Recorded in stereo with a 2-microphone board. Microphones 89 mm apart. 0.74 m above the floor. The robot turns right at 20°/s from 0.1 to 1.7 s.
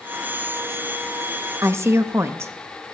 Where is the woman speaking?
30° right (ahead or behind), 0.7 m.